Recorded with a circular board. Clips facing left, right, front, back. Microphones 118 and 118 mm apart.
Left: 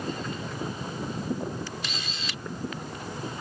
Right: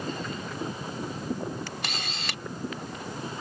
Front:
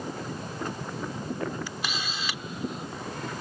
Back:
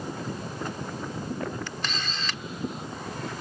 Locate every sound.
1.7 s a camera shutter: 80° right